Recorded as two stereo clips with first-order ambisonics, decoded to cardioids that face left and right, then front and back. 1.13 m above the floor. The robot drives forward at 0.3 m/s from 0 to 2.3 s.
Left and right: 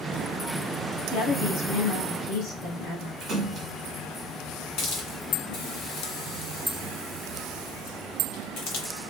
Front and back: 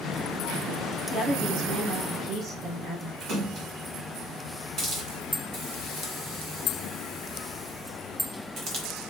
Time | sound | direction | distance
1.1 | a woman speaking | 95° left | 1.4 m
3.2 | a splash | 140° right | 1.1 m
4.8 | a hiss | 130° left | 0.9 m